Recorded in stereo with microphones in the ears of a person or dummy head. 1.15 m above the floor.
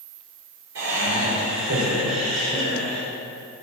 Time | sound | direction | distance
0.8 | laughter | 70° right (ahead or behind) | 2.5 m